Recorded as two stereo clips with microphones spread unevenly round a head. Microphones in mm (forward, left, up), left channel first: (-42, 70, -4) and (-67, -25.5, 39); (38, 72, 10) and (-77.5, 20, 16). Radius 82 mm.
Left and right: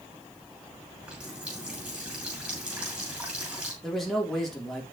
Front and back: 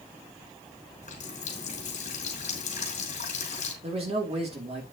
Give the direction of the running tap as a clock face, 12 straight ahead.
1 o'clock.